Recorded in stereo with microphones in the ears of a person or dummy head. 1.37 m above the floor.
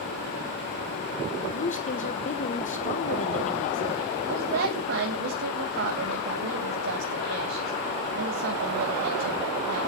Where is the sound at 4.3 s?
60° right (ahead or behind), 2.5 m.